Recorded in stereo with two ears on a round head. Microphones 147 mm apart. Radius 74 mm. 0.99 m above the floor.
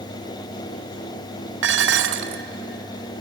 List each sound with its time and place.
1.6 s dishes clattering: 85° right, 0.8 m